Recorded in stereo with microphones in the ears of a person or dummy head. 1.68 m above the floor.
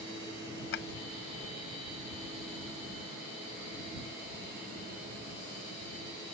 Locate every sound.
0.7 s a drawer: 60° left (ahead or behind)